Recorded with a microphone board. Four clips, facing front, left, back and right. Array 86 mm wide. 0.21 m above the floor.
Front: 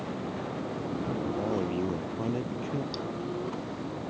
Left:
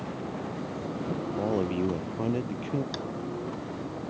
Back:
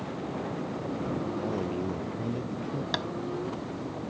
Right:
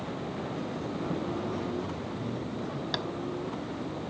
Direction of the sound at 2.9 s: 160° right.